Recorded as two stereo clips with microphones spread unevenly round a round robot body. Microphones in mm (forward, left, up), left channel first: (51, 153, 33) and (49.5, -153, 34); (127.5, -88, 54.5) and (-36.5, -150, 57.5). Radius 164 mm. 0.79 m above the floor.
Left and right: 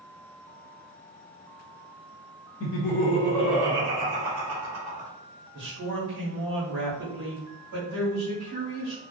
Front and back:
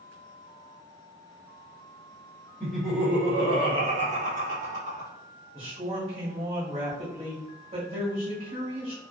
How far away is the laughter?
About 0.9 m.